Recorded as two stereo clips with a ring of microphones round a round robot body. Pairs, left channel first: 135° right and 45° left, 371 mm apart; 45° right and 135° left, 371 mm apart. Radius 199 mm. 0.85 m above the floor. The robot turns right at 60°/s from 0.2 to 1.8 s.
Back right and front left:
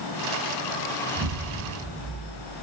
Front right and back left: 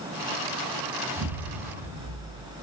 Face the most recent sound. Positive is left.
turn(degrees=110)